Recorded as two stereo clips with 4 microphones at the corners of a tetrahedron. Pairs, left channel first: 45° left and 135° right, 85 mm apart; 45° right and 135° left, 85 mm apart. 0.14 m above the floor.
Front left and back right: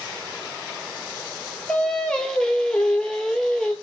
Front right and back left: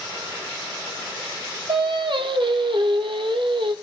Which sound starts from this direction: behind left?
Singing, at 1.7 s.